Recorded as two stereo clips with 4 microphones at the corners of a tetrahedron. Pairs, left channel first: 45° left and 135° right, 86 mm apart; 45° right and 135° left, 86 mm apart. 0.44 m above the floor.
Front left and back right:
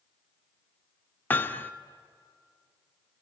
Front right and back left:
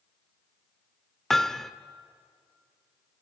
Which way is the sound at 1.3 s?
35° left.